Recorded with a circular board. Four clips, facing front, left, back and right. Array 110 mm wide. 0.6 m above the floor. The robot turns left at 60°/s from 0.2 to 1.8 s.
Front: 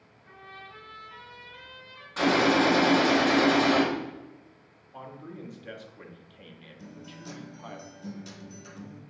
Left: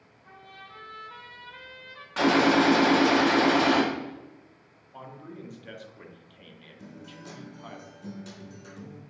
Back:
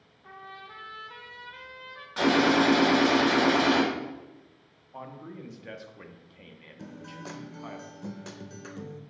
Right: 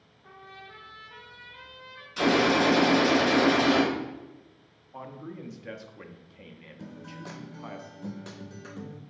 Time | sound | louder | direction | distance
0.2 | a trumpet | right 1 dB, back 3 dB | 145° right | 0.8 m
2.2 | a gunshot | left 2 dB, even | 95° left | 1.3 m
4.9 | a man speaking | right 2 dB, even | 120° right | 0.6 m
6.8 | a guitar | right 3 dB, back 4 dB | 145° right | 0.5 m